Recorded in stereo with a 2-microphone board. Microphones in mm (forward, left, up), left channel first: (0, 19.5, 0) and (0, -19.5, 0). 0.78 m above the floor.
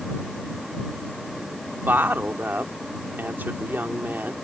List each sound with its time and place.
1.9 s a woman speaking: 60° right (ahead or behind)